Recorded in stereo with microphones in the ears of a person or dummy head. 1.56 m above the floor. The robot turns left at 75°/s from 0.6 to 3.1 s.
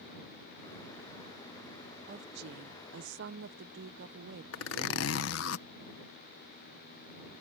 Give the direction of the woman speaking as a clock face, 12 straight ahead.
2 o'clock.